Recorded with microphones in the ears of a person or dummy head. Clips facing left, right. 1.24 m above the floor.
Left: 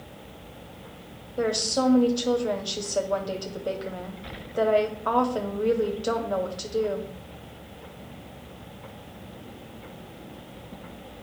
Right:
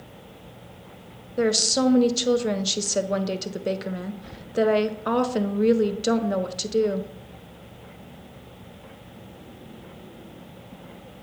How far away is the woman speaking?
About 0.5 m.